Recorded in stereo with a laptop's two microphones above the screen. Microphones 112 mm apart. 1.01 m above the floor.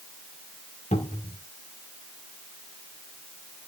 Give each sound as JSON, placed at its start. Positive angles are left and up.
{"t": 0.9, "sound": "a cupboard door", "side_deg": 80, "distance_m": 2.0}